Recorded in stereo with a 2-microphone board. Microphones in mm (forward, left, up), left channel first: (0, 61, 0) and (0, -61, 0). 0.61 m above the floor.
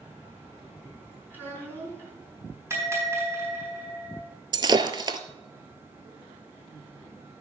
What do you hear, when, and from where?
1.3 s a child speaking: 15° right (ahead or behind), 5 m
2.7 s a bell: 20° right (ahead or behind), 4 m
4.5 s breaking glass: 40° right (ahead or behind), 0.7 m